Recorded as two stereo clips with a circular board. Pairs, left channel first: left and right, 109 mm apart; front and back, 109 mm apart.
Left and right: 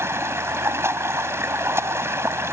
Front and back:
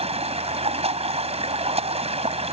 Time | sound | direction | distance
0.0 | running water | 155° right | ?